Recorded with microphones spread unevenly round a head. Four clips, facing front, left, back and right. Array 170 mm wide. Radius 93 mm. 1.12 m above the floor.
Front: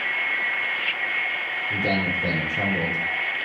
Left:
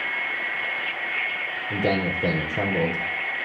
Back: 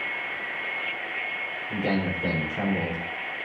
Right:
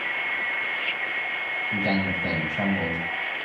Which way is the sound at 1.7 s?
90° left.